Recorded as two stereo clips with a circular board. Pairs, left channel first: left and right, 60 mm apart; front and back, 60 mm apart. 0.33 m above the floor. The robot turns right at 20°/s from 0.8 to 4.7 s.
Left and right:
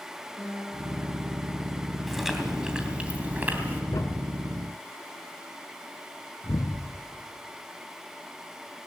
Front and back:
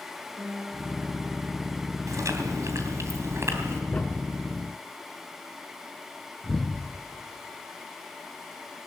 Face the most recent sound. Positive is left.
turn(degrees=80)